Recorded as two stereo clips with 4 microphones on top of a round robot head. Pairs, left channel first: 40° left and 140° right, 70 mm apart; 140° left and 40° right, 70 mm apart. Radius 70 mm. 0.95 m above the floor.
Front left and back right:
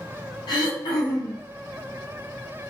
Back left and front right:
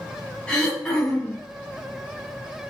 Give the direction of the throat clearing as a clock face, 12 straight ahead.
10 o'clock.